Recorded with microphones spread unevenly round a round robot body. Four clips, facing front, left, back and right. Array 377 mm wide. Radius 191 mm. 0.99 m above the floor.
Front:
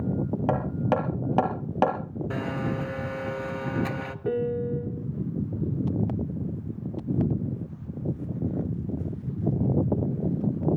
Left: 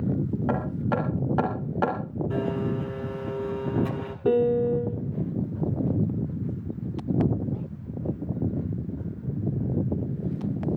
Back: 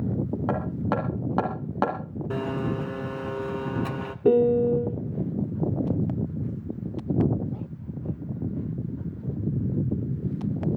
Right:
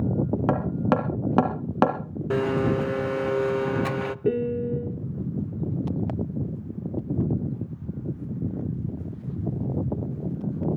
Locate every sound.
0.5 s hammering: 85° right, 3 m
2.3 s a blender: 100° right, 0.5 m
4.2 s a piano: 170° right, 0.8 m